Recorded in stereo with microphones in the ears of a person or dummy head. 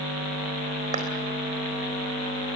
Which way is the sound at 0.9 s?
35° right (ahead or behind).